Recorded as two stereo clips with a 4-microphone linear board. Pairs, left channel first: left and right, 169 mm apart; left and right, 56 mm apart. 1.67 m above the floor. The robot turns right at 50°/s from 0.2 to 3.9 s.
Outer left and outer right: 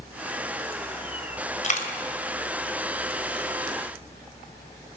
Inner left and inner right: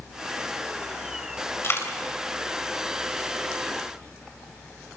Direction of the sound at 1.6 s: 45° left (ahead or behind).